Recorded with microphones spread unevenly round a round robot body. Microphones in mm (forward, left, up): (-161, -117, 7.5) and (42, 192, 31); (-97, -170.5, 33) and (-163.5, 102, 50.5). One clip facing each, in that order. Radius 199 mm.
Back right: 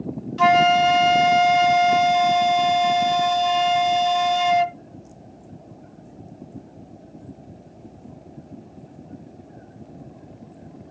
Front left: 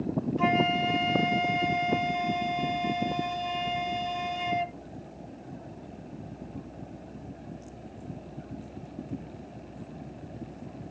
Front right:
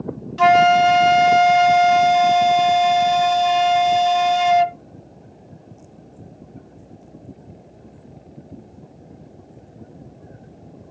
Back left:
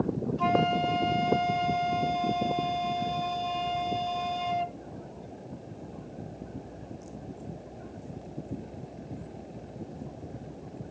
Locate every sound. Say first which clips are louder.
0.4 s a flute: back right 11 dB, front right 14 dB; 85° right